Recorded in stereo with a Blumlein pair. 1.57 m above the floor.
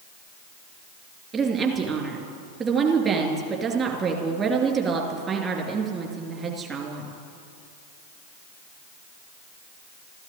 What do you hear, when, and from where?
1.3 s a woman speaking: 25° right, 3 m